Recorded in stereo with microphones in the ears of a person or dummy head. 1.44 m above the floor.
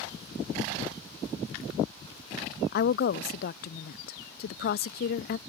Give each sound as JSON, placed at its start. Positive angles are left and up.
{"t": 2.7, "sound": "a woman speaking", "side_deg": 55}